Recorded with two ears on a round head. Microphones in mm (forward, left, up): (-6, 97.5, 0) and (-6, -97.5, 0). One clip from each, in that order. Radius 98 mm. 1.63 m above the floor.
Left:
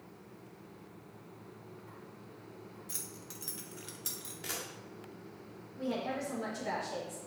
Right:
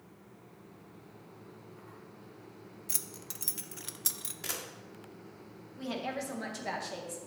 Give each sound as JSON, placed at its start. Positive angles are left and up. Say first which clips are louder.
{"t": 2.9, "sound": "keys jangling", "louder": "right 6 dB", "side_deg": -25, "distance_m": 0.5}
{"t": 4.4, "sound": "a camera shutter", "louder": "right 1 dB", "side_deg": -25, "distance_m": 1.4}
{"t": 5.8, "sound": "a woman speaking", "louder": "left 1 dB", "side_deg": -40, "distance_m": 2.0}